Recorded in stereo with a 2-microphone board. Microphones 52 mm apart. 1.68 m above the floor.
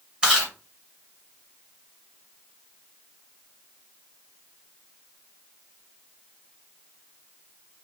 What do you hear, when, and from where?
0.2 s chewing: 20° right (ahead or behind), 2 m